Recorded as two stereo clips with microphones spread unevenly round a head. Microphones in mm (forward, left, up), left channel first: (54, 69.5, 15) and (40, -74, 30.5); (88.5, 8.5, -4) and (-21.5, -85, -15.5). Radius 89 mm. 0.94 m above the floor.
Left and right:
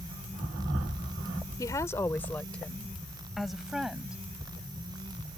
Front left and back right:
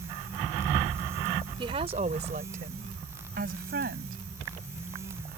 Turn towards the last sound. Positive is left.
turn(degrees=180)